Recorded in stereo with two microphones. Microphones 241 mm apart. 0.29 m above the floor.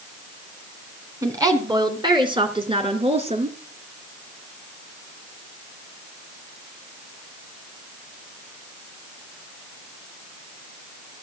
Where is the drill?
I don't hear a drill.